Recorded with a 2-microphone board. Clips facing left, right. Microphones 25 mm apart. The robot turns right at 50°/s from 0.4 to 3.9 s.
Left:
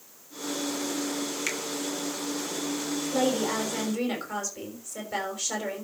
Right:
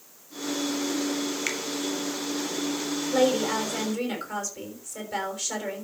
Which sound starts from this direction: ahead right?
A woman speaking, at 3.1 s.